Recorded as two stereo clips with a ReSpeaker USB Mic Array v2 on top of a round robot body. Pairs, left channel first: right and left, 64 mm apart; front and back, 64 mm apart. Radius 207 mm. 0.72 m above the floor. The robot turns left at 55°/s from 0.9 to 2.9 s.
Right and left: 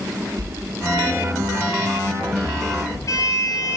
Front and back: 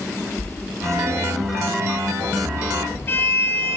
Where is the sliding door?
60° left, 6 m; by 3.8 s 50° right, 6 m.